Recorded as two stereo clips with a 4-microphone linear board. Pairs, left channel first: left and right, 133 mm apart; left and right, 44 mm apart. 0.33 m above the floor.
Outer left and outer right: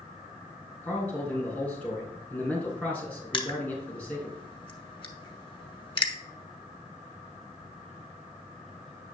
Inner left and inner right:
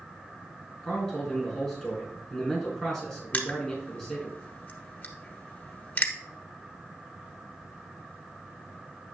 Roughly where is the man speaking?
Centre.